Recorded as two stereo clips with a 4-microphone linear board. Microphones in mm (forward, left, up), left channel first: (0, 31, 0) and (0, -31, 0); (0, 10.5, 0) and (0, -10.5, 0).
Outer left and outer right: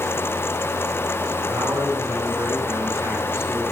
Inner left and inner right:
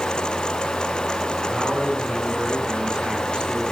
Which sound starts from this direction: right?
A man speaking, at 1.5 s.